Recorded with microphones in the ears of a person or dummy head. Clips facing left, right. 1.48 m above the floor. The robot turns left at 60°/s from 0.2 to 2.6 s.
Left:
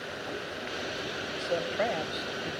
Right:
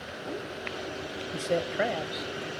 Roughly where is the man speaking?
Behind right.